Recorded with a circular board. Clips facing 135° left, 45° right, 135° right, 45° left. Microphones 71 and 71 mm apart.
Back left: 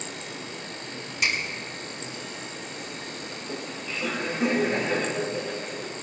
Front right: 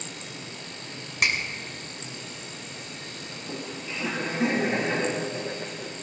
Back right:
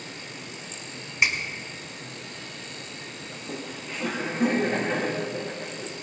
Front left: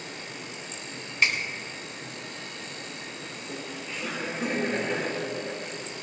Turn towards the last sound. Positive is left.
turn(degrees=-105)